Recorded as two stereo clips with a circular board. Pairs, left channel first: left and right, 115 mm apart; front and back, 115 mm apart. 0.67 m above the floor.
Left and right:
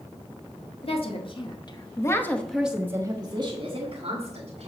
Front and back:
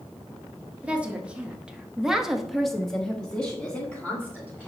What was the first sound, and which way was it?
A woman speaking, 105° left.